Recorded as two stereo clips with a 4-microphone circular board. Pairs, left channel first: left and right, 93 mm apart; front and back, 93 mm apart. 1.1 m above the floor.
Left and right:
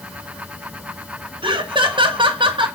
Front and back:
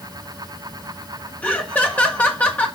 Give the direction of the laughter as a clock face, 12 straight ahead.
2 o'clock.